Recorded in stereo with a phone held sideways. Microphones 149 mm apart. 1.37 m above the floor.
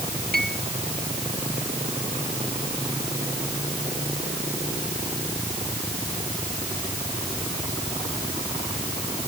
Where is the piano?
75° right (ahead or behind).